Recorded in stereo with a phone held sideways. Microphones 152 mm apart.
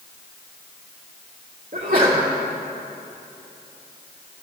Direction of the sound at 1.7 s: 65° right (ahead or behind).